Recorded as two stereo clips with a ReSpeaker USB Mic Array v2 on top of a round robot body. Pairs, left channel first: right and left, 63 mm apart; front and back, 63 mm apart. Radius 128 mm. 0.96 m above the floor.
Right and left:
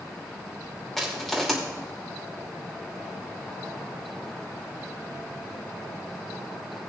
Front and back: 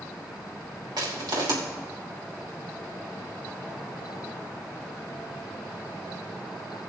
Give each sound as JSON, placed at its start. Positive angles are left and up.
{"t": 1.0, "sound": "crushing", "azimuth_deg": -175, "distance_m": 3.0}